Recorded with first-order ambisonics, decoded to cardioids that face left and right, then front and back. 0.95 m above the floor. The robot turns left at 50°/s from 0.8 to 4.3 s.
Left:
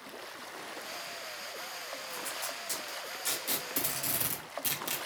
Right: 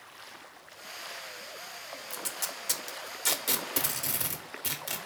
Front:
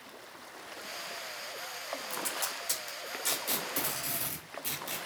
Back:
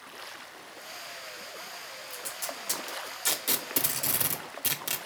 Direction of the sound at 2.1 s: 70° right.